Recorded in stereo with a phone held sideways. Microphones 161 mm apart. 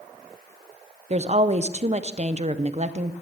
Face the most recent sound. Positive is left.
turn(degrees=-40)  # may be behind; listen again after turning